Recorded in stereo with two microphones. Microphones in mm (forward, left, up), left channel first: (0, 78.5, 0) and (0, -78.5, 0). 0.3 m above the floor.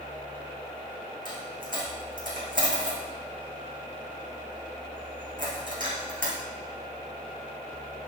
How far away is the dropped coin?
About 3.5 m.